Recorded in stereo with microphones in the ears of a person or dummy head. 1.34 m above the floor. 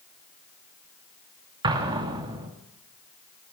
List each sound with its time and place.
1.6 s an explosion: 30° right (ahead or behind), 2.5 m